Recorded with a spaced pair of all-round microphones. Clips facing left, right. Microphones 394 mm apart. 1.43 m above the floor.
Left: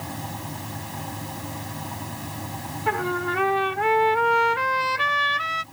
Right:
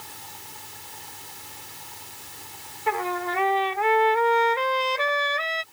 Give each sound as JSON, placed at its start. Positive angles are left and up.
{"t": 0.0, "sound": "a fan", "side_deg": 80}
{"t": 2.9, "sound": "a trumpet", "side_deg": 25}